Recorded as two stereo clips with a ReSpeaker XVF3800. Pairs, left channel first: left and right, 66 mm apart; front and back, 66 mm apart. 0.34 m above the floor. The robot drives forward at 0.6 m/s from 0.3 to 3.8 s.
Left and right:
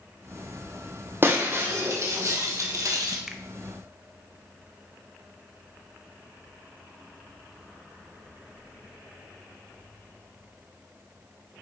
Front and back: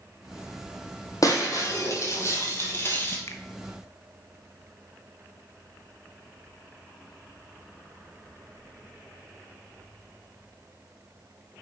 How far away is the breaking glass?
About 2.5 m.